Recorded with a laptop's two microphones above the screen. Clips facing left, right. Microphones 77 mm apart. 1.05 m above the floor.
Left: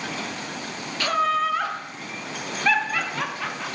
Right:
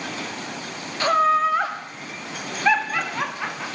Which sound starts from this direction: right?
Laughter, at 1.0 s.